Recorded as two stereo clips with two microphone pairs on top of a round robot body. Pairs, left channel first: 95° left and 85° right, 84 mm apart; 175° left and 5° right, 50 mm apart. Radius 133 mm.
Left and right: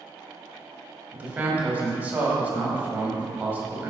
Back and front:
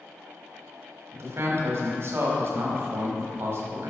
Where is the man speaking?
20° right, 1.3 m.